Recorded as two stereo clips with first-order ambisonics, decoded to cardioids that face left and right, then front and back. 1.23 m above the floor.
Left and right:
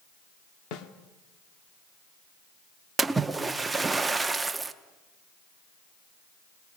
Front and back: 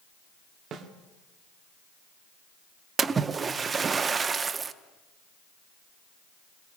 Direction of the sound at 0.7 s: 120° left.